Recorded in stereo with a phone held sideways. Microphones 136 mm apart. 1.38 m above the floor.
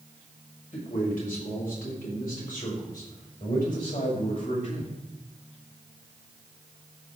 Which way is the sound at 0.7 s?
85° left.